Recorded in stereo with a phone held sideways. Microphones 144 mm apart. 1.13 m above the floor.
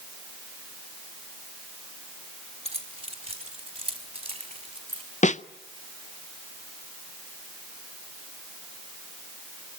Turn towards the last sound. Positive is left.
turn(degrees=55)  # may be behind; listen again after turning